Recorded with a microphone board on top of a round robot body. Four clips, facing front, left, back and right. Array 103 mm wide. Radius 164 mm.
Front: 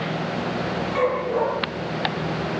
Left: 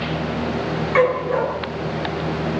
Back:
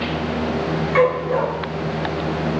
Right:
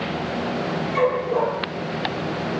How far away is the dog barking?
About 6 m.